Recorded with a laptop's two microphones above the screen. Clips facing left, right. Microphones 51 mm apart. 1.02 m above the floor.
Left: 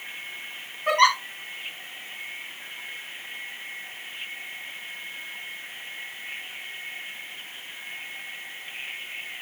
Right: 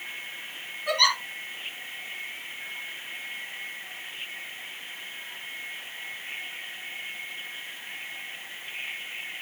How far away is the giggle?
About 4.5 m.